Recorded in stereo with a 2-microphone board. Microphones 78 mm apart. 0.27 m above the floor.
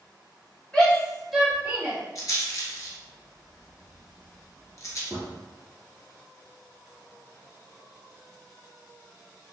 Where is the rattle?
45° left (ahead or behind), 0.9 m.